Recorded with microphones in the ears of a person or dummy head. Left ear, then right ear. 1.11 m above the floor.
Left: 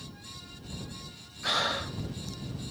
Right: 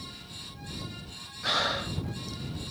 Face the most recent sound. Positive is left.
turn(degrees=5)  # may be behind; listen again after turning